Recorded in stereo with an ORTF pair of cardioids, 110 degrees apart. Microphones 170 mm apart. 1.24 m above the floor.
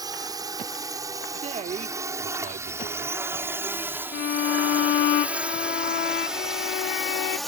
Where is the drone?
25° right; by 7.5 s straight ahead.